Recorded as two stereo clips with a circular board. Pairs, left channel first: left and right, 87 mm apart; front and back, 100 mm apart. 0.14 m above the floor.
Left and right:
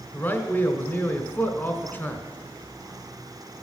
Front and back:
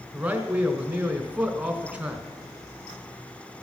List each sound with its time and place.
0.1 s a man speaking: 120° left, 1.4 m